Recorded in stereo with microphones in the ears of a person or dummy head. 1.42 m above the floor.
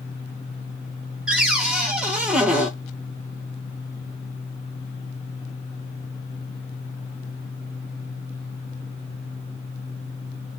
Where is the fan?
20° left (ahead or behind), 1.0 m.